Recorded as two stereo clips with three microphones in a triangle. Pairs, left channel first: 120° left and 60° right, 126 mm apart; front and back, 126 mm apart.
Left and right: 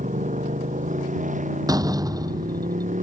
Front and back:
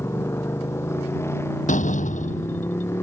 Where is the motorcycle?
70° right.